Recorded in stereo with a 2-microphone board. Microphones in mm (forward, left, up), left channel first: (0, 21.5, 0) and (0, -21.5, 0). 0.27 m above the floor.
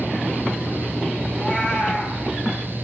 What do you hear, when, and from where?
1.3 s a cat meowing: 30° left (ahead or behind), 3 m